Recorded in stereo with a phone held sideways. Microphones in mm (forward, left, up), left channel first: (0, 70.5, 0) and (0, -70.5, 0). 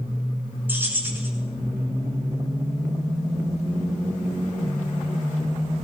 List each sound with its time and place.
0.7 s keys jangling: 15° right (ahead or behind), 6.5 m